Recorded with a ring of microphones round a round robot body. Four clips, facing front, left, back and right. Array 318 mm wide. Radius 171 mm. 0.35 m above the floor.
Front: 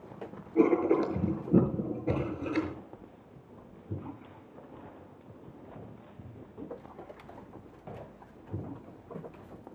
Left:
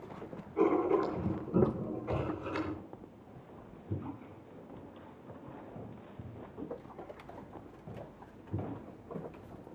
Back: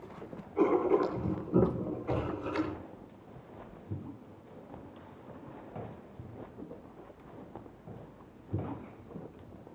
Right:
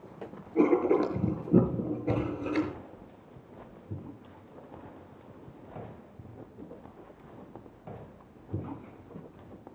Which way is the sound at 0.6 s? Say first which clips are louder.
Right 4 dB, front 2 dB; 45° right.